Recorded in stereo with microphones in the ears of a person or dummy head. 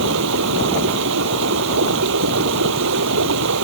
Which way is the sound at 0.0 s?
75° right (ahead or behind).